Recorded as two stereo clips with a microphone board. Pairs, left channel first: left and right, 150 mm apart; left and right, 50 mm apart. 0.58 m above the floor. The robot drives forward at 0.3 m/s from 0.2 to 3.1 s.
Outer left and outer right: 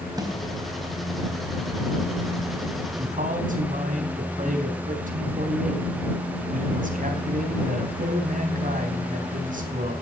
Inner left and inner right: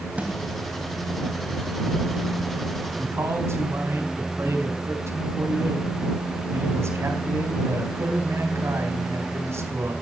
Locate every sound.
0.2 s a snare drum: 25° right (ahead or behind), 4 m
3.0 s a man speaking: 55° right (ahead or behind), 4 m